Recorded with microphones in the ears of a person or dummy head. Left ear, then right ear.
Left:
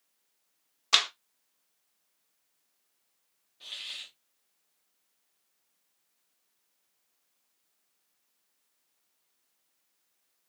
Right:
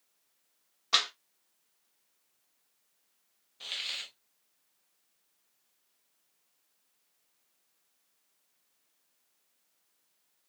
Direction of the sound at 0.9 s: 25° left (ahead or behind).